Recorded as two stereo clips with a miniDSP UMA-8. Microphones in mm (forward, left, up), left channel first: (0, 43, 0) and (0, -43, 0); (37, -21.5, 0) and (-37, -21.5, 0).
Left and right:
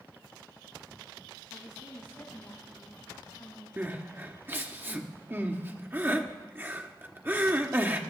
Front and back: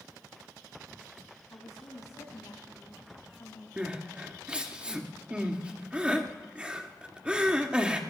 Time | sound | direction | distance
1.5 | a woman speaking | 30° left | 7.5 m
3.8 | crying | 125° right | 1.3 m